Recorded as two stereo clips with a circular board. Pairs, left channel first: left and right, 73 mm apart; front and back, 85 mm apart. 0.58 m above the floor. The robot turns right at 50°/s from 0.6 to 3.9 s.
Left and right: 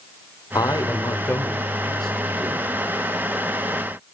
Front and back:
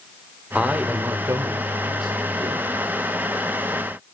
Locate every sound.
0.6 s a man speaking: 105° left, 1.9 m; by 2.8 s 145° right, 1.9 m